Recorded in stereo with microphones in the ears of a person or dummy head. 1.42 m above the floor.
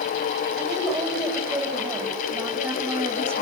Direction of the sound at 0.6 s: Centre (ahead or behind).